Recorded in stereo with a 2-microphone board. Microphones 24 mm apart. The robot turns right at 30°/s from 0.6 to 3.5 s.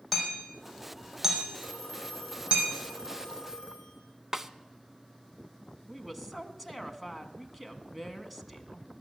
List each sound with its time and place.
0.1 s hammering: centre (ahead or behind), 4.5 m; by 2.6 s 60° right (ahead or behind), 4.5 m
1.6 s a phone ringing: 105° left, 6 m; by 4.0 s 160° left, 6 m
4.3 s a snare drum: 25° right (ahead or behind), 0.5 m
5.9 s a woman speaking: 5° right (ahead or behind), 1.1 m